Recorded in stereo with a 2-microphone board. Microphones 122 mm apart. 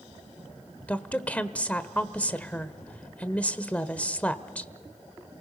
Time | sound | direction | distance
0.9 | a woman speaking | 10° left (ahead or behind) | 1.2 m